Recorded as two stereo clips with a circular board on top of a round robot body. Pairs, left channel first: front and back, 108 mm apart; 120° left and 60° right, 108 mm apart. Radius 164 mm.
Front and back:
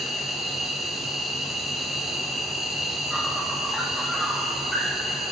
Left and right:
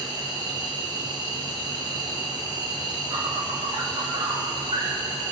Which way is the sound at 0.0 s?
90° right.